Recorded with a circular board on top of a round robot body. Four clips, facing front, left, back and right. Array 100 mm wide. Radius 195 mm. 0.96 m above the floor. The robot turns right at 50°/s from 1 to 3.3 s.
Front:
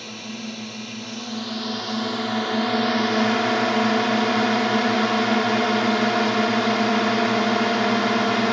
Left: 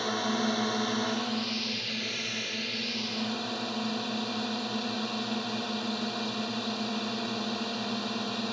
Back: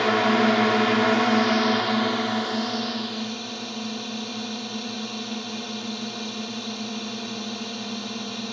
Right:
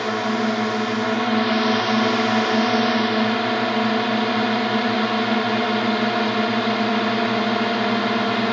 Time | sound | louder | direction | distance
0.0 | a drone | right 8 dB, back 15 dB | 155° right | ?